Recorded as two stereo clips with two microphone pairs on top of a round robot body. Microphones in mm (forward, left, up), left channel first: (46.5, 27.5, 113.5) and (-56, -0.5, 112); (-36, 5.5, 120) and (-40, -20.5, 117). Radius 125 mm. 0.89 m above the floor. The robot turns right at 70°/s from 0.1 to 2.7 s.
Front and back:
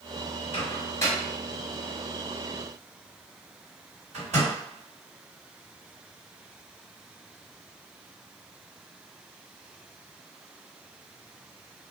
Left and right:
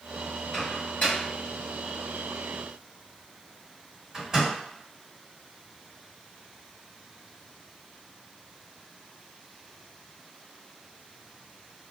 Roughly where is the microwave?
Ahead left.